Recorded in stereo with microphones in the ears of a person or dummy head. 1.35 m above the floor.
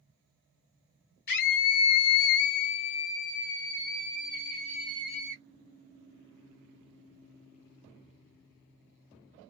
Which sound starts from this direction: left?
A scream, at 1.3 s.